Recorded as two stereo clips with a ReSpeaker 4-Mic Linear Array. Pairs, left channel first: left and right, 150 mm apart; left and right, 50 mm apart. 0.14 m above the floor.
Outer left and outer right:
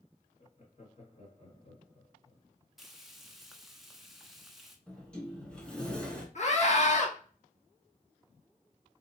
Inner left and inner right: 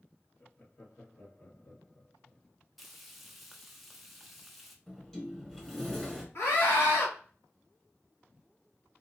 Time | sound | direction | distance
0.4 | laughter | 45° left (ahead or behind) | 2 m
2.8 | frying | centre (ahead or behind) | 0.9 m
4.9 | a sliding door | 5° left (ahead or behind) | 1.2 m
6.3 | a scream | 50° left (ahead or behind) | 2.5 m